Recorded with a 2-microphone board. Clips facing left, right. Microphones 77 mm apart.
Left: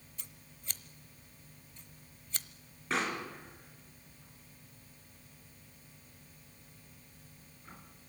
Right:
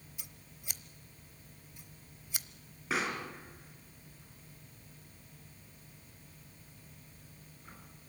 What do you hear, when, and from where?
0.2 s scissors: 10° right (ahead or behind), 0.9 m
2.9 s a pop: 5° right (ahead or behind), 4 m